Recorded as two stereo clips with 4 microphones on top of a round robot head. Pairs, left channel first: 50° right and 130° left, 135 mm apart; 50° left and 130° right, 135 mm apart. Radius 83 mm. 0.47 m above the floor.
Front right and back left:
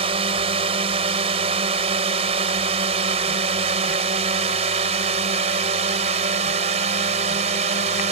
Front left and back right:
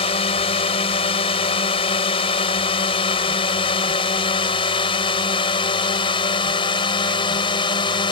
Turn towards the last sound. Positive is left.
turn(degrees=100)